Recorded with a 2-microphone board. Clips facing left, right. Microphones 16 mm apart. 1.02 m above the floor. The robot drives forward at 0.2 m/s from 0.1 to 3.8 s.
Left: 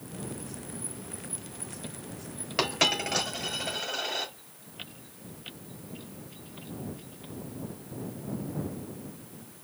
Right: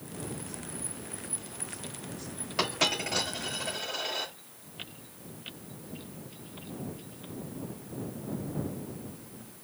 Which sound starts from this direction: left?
A dropped coin, at 2.6 s.